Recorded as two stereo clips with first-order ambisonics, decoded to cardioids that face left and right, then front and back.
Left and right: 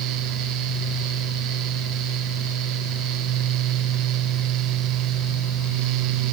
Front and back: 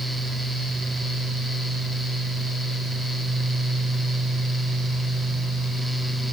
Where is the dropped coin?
I don't hear a dropped coin.